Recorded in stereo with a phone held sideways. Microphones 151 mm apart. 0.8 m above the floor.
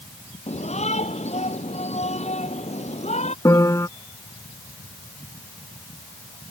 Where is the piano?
20° left (ahead or behind).